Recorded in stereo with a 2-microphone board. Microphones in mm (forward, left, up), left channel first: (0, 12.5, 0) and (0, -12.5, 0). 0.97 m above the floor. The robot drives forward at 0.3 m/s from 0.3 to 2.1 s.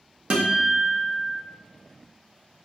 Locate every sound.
0.3 s a guitar: 40° right (ahead or behind), 0.8 m; by 1.4 s 30° right (ahead or behind), 1.0 m